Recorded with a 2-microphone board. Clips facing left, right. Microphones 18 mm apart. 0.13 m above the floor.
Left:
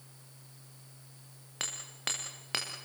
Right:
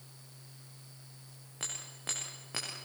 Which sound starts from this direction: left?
Hammering, at 1.6 s.